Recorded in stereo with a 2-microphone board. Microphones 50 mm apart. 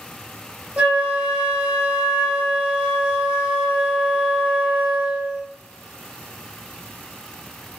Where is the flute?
30° right (ahead or behind), 1.3 m.